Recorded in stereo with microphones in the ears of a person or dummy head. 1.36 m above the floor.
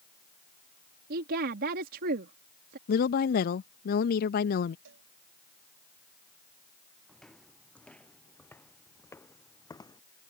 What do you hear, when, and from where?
1.1 s a woman speaking: 50° right (ahead or behind)
2.9 s a woman speaking: 55° left (ahead or behind)
4.8 s a cowbell: 70° right (ahead or behind)
7.1 s footsteps: centre (ahead or behind); by 10.0 s 15° left (ahead or behind)